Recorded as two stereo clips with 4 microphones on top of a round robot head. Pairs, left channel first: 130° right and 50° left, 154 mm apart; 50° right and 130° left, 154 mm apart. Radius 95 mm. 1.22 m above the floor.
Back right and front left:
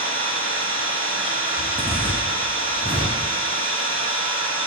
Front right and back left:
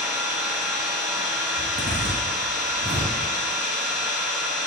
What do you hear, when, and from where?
0.0 s an engine running: 50° left, 1.2 m
1.6 s a zipper: 135° left, 1.4 m